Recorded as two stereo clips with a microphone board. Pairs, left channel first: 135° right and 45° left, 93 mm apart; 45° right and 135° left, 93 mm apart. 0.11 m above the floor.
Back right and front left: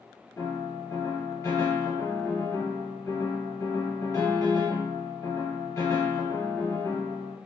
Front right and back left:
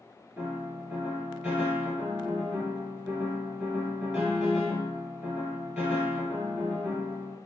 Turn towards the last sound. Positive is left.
turn(degrees=-155)